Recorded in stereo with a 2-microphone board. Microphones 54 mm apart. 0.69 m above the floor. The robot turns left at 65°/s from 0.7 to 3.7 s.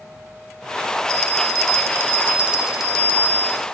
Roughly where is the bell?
Right.